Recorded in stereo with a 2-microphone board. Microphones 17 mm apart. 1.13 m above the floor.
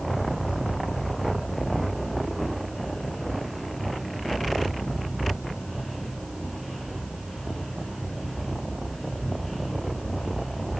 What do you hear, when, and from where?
Only background noise.